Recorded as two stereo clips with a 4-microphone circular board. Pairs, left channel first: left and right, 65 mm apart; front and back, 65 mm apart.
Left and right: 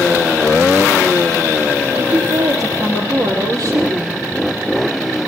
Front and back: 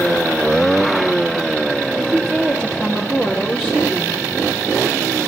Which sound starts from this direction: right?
A woman speaking, at 2.0 s.